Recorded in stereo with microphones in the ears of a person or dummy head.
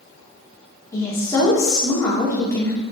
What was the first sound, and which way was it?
A woman speaking, 15° left (ahead or behind).